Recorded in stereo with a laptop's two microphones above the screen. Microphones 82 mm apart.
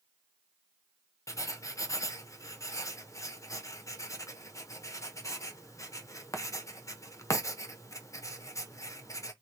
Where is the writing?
40° left (ahead or behind), 0.8 m.